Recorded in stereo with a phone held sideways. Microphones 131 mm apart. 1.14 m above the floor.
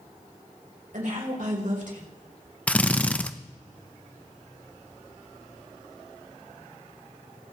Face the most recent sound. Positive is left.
turn(degrees=10)  # may be behind; listen again after turning